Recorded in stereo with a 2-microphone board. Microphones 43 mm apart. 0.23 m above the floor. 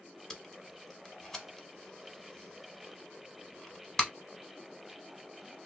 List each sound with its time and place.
0.3 s tape being pulled: 10° left (ahead or behind), 0.7 m